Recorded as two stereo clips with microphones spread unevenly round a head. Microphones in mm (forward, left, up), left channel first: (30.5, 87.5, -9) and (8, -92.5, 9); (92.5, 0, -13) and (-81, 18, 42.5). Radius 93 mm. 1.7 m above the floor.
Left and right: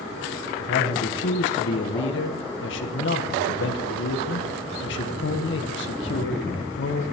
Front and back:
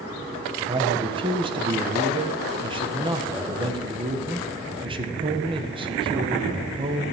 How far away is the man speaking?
About 1.6 m.